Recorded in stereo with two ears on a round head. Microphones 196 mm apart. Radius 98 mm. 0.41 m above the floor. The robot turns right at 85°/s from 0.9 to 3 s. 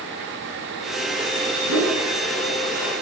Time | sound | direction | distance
1.7 | a whoosh | 75° right (ahead or behind) | 2.5 m